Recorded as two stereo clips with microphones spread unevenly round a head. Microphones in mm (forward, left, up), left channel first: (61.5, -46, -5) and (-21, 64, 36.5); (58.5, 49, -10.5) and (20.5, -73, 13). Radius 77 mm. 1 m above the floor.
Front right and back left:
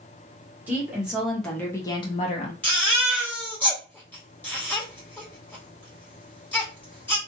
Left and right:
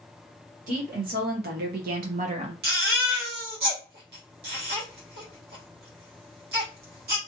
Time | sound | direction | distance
0.7 | a woman speaking | 150° right | 1.4 m
2.6 | a baby crying | 130° right | 1.5 m